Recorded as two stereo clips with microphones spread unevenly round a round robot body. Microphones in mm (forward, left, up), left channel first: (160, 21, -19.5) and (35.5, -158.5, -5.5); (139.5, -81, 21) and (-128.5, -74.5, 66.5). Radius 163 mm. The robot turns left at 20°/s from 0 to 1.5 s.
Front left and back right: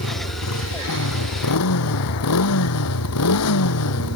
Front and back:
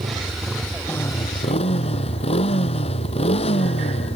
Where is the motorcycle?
100° left; by 4.2 s 70° left.